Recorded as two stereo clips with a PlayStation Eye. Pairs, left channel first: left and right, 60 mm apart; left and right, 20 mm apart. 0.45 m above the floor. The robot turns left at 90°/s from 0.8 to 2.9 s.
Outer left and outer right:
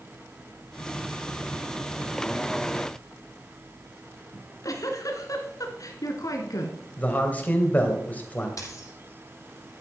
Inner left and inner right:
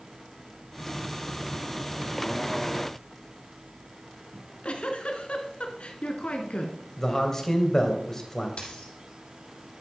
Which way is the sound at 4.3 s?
70° left (ahead or behind).